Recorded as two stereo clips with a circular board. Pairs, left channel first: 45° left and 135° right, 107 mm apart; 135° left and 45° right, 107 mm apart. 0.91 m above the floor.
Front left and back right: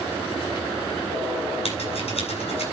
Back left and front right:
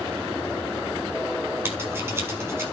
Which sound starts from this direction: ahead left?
Scissors, at 1.6 s.